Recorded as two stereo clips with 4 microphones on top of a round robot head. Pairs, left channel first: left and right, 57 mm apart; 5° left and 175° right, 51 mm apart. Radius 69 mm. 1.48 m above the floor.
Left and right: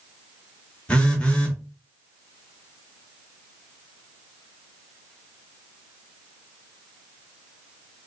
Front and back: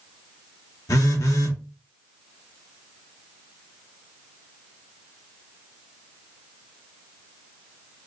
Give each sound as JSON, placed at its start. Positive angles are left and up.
{"t": 0.9, "sound": "a phone buzzing", "azimuth_deg": 20, "distance_m": 1.2}